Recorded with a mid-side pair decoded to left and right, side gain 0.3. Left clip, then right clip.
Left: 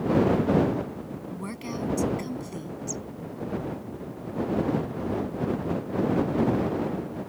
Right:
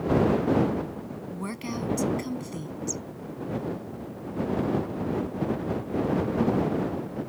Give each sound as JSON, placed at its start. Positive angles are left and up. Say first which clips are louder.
{"t": 1.3, "sound": "a woman speaking", "louder": "right 2 dB", "azimuth_deg": -30}